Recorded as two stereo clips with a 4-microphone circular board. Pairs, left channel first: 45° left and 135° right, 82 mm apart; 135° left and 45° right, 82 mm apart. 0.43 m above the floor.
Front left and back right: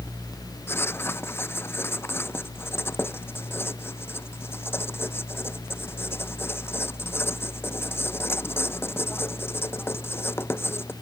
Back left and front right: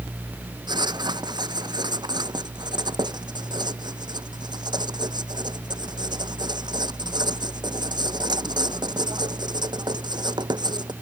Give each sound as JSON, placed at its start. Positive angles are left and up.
{"t": 0.7, "sound": "writing", "azimuth_deg": -15}